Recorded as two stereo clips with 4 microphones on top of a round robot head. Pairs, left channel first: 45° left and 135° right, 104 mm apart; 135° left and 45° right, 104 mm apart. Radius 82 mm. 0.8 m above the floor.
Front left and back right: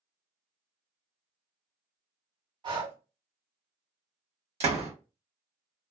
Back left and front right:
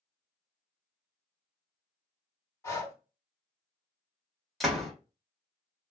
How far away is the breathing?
About 2 m.